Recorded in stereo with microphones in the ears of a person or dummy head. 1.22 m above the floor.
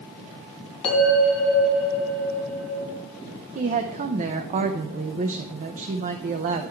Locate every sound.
0.8 s a bell: 30° left (ahead or behind), 3 m
3.5 s a woman speaking: 40° right (ahead or behind), 0.5 m